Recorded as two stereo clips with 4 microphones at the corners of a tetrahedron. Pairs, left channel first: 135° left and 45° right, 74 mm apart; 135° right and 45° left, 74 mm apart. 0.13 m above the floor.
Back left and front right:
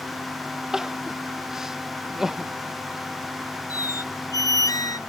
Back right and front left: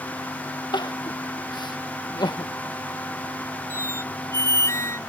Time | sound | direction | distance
0.7 | crying | 125° right | ?
3.7 | a squeak | 175° left | ?